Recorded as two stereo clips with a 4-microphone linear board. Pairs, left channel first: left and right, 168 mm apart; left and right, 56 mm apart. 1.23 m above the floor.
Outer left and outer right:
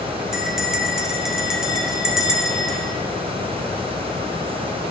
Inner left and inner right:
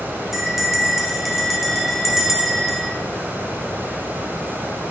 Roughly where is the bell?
Centre.